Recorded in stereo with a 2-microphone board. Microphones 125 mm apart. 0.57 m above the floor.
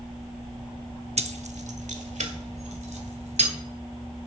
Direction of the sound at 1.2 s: 60° right (ahead or behind).